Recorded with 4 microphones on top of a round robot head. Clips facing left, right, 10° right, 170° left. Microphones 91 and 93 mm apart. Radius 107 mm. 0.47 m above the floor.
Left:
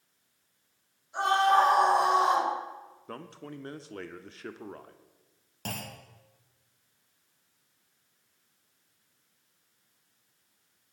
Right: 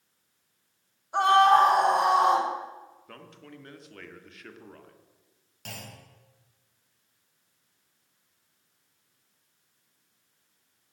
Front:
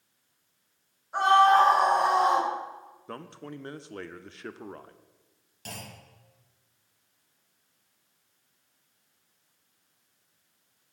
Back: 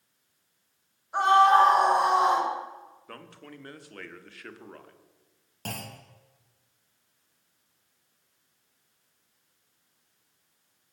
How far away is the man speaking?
About 1.2 m.